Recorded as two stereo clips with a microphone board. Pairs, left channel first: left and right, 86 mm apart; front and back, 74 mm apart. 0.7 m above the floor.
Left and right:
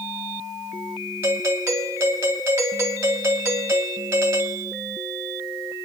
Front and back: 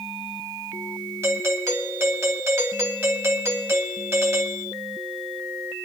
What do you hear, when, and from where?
1.2 s a doorbell: 145° right, 2 m